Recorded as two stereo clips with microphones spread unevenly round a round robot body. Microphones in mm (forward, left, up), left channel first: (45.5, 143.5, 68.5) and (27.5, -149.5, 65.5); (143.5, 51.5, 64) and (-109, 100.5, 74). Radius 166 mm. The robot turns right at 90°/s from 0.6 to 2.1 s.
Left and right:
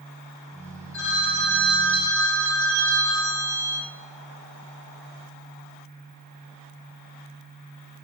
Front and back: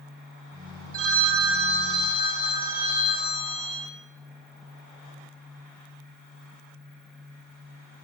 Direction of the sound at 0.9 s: 170° left.